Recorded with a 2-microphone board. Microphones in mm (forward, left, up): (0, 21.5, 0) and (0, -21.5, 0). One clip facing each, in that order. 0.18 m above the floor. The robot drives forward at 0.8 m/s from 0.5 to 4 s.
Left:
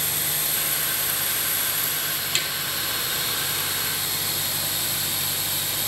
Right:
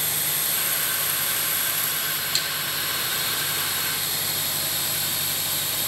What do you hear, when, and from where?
2.4 s tapping: 50° left (ahead or behind), 4 m; by 2.5 s 55° left (ahead or behind), 4 m